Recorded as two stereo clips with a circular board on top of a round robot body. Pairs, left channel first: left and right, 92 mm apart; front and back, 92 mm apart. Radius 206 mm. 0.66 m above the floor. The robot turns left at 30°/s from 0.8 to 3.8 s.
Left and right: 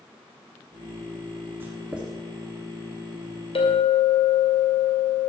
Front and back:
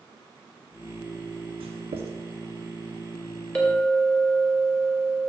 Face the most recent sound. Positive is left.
turn(degrees=70)